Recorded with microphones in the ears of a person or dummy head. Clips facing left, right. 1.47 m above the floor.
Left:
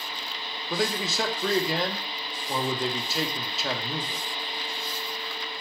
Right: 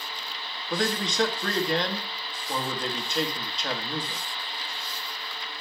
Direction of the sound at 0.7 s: Centre (ahead or behind).